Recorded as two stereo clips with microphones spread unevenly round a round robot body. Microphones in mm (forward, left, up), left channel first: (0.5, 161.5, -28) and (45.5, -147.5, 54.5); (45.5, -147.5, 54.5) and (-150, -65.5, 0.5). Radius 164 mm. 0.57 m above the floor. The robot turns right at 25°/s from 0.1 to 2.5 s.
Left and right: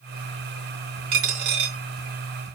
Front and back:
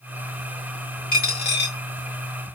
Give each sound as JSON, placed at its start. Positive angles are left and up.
{"t": 1.1, "sound": "a dropped coin", "azimuth_deg": -70, "distance_m": 1.4}